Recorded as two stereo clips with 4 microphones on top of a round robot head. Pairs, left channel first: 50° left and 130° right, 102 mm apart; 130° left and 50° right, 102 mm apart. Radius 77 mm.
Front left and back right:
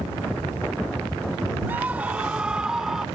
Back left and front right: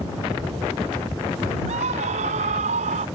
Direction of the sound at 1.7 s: 55° right.